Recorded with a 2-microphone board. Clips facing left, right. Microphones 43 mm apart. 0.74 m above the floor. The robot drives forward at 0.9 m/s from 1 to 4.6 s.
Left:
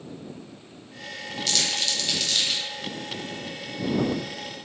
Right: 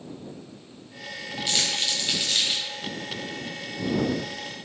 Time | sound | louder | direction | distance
1.5 | crumpling | even | 20° right (ahead or behind) | 1.5 m